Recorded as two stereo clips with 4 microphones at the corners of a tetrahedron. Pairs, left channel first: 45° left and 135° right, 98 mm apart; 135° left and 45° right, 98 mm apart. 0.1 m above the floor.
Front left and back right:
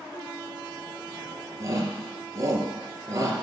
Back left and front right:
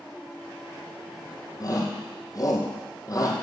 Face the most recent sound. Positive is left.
turn(degrees=175)